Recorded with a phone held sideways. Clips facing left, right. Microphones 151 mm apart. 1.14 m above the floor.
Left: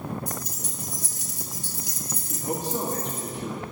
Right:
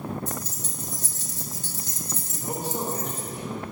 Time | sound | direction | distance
0.3 | keys jangling | 15° left (ahead or behind) | 0.7 m
2.3 | a man speaking | 80° left | 1.5 m